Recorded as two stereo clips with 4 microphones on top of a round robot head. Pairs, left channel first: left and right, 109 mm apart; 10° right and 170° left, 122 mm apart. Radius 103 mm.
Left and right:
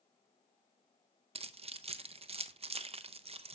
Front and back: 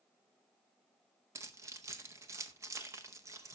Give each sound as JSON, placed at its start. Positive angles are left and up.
{"t": 1.4, "sound": "keys jangling", "azimuth_deg": -120, "distance_m": 0.7}